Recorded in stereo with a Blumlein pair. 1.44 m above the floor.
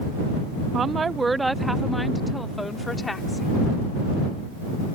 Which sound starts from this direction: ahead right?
A woman speaking, at 0.7 s.